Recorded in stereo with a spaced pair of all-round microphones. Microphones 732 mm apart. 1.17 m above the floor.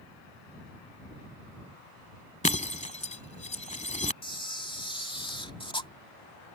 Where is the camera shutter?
5° left (ahead or behind).